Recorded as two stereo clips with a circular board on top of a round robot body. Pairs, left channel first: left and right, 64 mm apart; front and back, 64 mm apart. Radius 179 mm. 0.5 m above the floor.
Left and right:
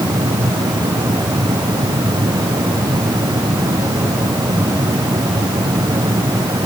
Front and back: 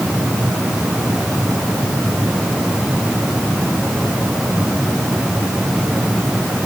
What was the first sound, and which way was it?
Only background noise.